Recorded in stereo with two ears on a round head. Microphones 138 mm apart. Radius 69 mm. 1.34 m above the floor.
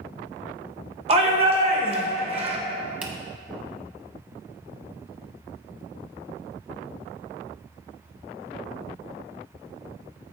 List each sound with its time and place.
1.1 s a shout: 40° right (ahead or behind), 1.0 m
3.0 s a finger snap: 10° right (ahead or behind), 0.9 m